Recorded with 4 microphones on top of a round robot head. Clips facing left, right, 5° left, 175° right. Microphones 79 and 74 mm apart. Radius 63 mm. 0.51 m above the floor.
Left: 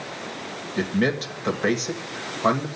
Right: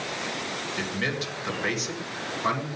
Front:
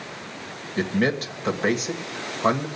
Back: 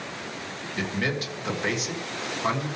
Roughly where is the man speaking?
Ahead left.